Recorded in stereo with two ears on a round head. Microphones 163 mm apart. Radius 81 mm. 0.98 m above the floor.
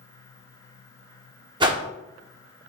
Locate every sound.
1.6 s a whoosh: 25° right (ahead or behind), 0.6 m